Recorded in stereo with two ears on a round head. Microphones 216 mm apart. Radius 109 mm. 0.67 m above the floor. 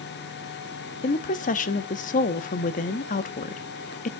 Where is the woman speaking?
35° left (ahead or behind), 0.7 m.